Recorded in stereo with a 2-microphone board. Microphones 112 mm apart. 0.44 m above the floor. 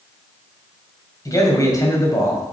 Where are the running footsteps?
No running footsteps in this recording.